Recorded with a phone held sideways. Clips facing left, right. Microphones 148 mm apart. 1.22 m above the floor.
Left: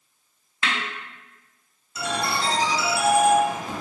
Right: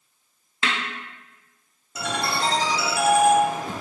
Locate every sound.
0.6 s a snare drum: 30° right (ahead or behind), 0.9 m
1.9 s a ringtone: 55° right (ahead or behind), 1.7 m